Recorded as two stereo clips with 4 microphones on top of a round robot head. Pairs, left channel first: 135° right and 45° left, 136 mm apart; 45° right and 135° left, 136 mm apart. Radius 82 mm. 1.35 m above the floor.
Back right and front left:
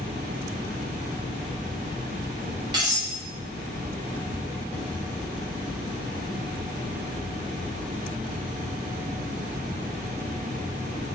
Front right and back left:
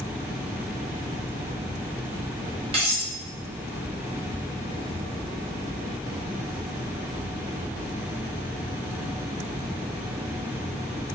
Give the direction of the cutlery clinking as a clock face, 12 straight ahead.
9 o'clock.